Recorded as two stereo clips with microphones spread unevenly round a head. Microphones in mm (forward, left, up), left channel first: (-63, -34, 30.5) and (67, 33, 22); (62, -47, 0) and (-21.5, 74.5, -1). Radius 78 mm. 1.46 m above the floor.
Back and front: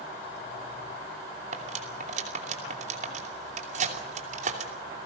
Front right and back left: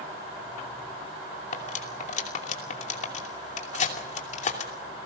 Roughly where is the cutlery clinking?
Ahead.